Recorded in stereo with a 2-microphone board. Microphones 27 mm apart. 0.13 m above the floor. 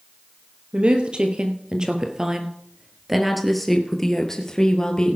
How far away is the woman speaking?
About 2.5 m.